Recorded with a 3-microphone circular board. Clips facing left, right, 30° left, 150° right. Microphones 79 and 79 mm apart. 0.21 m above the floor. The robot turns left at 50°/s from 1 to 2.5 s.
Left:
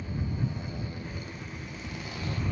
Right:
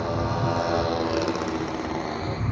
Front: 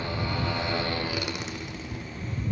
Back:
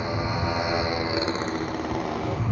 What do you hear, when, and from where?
0.0 s a motorcycle: 80° right; by 2.5 s 150° right